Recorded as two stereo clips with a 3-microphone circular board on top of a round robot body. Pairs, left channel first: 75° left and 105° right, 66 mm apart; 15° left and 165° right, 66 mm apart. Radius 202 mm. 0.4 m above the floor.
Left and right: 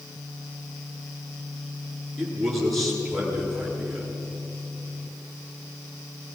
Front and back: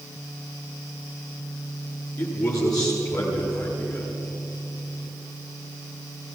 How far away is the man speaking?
About 9 m.